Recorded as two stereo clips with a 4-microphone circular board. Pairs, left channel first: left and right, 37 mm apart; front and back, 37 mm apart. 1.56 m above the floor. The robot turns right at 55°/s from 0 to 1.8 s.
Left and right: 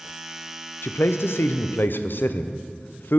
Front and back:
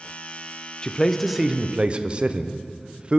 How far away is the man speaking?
About 0.5 m.